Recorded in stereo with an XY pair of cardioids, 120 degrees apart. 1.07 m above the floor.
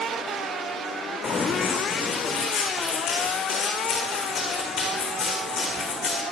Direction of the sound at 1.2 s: 45° left.